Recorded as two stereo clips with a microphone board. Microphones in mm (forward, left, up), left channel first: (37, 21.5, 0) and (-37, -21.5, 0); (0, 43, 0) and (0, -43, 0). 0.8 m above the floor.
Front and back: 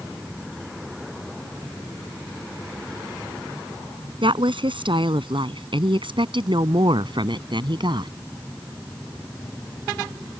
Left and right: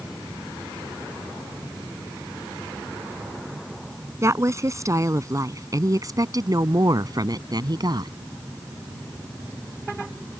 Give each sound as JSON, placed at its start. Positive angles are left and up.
{"t": 4.2, "sound": "a woman speaking", "azimuth_deg": -145}